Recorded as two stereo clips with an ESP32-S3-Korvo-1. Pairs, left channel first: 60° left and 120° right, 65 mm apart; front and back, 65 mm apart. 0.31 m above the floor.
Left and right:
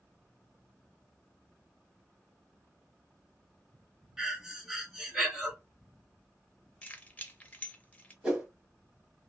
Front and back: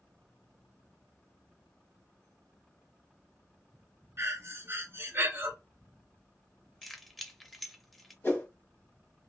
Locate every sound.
4.2 s breathing: 165° left, 0.8 m
6.8 s keys jangling: 85° left, 0.6 m
8.2 s a whoosh: 45° right, 1.2 m